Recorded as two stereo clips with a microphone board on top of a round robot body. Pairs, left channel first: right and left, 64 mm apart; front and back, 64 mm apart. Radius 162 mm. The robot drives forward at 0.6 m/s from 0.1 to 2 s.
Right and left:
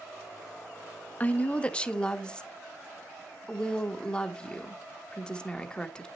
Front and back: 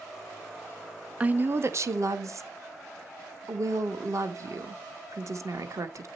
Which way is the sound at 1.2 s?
130° right.